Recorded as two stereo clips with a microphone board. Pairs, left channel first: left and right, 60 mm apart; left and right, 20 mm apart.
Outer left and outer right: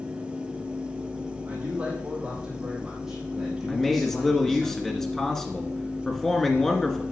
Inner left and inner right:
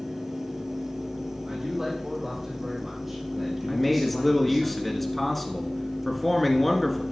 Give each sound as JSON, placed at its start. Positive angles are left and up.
{"t": 1.4, "sound": "a man speaking", "side_deg": -25, "distance_m": 5.0}
{"t": 3.7, "sound": "a man speaking", "side_deg": 10, "distance_m": 1.7}